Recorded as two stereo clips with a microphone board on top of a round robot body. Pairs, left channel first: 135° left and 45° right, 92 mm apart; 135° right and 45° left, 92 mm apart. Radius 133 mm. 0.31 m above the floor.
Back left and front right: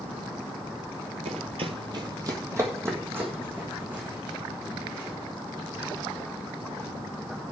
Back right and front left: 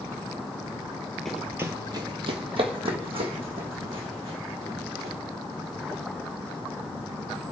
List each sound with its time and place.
1.2 s running footsteps: 50° right, 0.5 m; by 5.1 s 35° left, 2.5 m